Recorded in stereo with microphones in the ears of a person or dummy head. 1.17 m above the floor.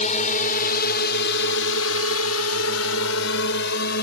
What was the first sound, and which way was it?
A drone, 50° left (ahead or behind).